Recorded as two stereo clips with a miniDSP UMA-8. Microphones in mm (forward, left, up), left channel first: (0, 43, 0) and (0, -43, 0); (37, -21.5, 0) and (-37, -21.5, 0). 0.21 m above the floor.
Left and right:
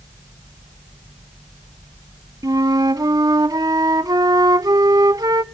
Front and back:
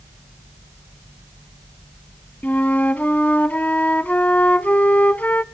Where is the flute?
65° right, 0.5 m.